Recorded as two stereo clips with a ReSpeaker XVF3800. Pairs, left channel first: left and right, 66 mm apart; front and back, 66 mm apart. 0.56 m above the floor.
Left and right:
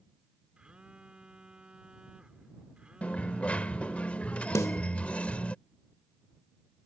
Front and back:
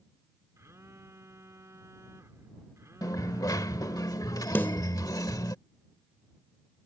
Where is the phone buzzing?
160° right.